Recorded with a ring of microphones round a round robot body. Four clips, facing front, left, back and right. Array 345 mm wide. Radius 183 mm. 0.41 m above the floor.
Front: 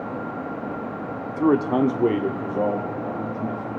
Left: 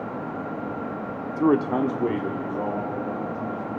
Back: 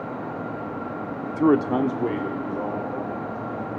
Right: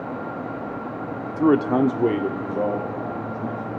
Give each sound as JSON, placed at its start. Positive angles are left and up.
{"t": 1.3, "sound": "a man speaking", "azimuth_deg": 170, "distance_m": 0.8}